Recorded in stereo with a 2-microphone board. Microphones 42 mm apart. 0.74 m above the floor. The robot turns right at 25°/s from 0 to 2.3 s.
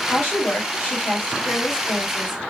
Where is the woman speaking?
120° left, 1.2 m; by 2.4 s 175° left, 1.2 m.